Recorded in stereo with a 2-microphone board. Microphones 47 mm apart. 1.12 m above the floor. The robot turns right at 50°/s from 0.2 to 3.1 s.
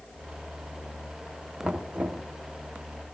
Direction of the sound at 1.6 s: 155° right.